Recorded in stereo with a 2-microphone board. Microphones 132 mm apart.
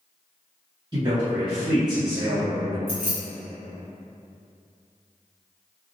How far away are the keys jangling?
About 1.4 m.